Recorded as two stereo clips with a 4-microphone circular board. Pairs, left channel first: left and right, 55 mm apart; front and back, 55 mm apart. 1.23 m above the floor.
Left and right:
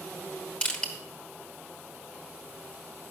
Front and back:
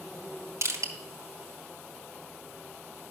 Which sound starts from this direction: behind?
Crushing, at 0.6 s.